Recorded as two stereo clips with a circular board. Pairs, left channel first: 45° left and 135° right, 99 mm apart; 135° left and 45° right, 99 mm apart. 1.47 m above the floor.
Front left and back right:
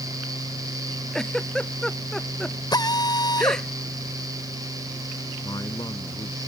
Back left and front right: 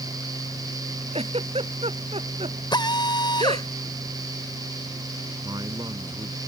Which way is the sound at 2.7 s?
95° left.